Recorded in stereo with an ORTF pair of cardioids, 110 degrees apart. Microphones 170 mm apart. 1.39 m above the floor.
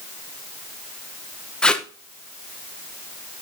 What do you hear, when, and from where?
1.6 s tape being pulled: 5° left, 1.0 m